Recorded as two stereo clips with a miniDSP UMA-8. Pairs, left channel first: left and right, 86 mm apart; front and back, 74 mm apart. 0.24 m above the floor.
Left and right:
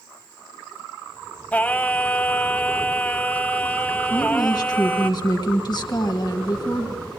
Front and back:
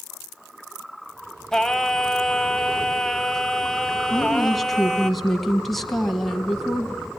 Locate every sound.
1.5 s singing: 70° left, 0.8 m
4.1 s a woman speaking: 90° left, 1.8 m